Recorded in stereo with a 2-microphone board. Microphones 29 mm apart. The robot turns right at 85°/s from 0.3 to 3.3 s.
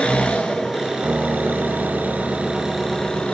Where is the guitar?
115° right, 1.5 m; by 3.2 s 75° left, 1.5 m.